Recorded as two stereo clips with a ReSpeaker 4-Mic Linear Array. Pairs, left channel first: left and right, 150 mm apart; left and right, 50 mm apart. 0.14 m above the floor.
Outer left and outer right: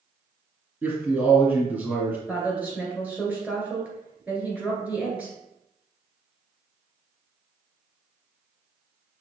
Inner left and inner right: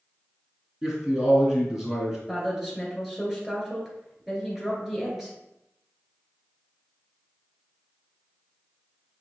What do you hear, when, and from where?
0.8 s a man speaking: 15° right (ahead or behind), 1.9 m
2.3 s a woman speaking: 10° right (ahead or behind), 2 m